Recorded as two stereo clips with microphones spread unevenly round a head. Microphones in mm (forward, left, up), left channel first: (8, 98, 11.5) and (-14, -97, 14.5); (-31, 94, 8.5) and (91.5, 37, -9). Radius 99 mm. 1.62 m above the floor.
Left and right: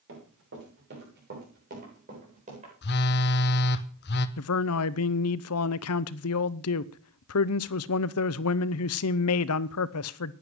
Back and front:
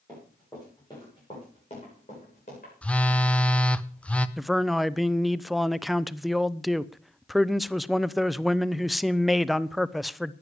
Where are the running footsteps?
125° right, 9 m; by 2.7 s 155° right, 7.5 m.